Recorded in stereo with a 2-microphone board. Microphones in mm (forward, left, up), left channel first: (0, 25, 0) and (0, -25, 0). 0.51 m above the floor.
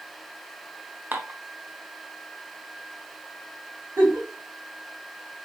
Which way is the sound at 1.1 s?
40° right (ahead or behind).